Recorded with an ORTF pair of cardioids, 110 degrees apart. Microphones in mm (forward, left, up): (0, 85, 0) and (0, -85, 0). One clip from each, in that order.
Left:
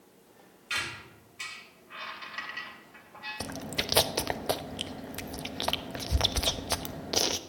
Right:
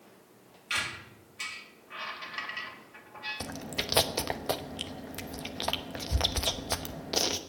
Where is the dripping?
I don't hear dripping.